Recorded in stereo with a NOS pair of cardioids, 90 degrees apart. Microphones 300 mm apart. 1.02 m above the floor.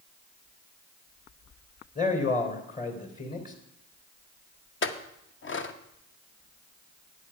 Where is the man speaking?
30° left, 3.5 m.